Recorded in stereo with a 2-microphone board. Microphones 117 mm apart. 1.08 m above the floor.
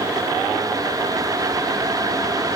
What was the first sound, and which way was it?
Only background noise.